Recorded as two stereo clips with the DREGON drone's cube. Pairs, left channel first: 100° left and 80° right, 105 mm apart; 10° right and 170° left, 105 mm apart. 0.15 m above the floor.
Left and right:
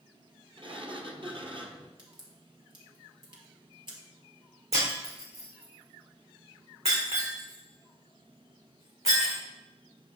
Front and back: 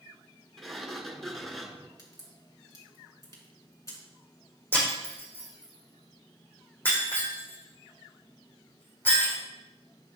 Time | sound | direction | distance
0.6 | a sliding door | 100° right | 1.2 m
2.0 | a crack | 60° right | 3 m
4.7 | breaking glass | 85° right | 4 m